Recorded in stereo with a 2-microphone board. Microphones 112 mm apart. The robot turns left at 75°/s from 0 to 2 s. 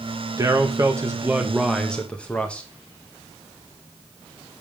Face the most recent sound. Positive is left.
turn(degrees=160)